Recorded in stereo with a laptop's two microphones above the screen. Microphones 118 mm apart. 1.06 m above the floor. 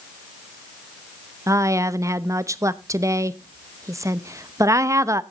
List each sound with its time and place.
1.5 s a woman speaking: 25° right (ahead or behind), 0.8 m